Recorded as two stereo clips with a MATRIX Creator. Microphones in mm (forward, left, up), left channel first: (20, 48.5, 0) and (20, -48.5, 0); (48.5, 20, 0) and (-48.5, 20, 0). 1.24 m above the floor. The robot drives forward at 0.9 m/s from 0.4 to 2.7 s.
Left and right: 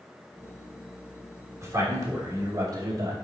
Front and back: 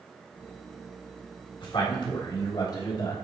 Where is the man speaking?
30° right, 3.5 m; by 3.1 s 45° right, 2.5 m.